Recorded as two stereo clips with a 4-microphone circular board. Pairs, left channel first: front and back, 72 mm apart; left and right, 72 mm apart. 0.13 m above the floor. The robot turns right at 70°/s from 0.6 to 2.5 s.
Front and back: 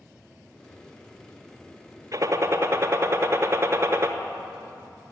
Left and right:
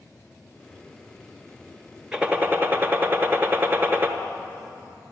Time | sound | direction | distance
2.1 | a gunshot | 165° right | 1.0 m